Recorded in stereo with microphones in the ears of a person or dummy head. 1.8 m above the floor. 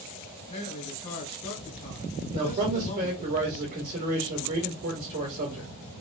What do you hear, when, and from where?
0.5 s a man speaking: 35° left (ahead or behind), 1.2 m
2.3 s a man speaking: 40° right (ahead or behind), 1.6 m